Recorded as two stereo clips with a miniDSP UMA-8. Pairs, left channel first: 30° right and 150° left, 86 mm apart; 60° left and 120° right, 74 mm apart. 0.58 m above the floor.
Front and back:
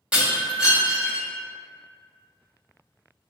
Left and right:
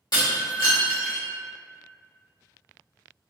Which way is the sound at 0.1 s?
75° left.